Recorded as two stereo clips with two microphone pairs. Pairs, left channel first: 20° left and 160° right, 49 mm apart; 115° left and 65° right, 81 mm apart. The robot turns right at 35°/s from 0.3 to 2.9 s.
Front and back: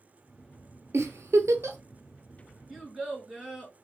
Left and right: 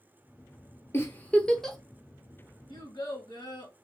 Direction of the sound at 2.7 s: 120° left.